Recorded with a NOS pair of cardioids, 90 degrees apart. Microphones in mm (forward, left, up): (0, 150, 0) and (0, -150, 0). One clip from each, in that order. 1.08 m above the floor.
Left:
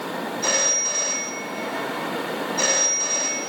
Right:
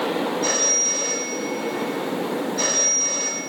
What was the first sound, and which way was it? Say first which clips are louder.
A phone ringing: even; 20° left.